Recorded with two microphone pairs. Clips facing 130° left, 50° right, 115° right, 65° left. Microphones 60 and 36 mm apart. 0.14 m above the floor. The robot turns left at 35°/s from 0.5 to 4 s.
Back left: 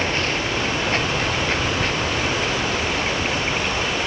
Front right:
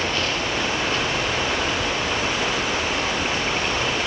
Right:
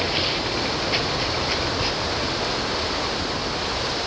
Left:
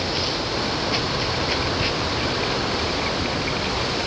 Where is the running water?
Straight behind, 2.5 m; by 4.1 s 60° left, 2.5 m.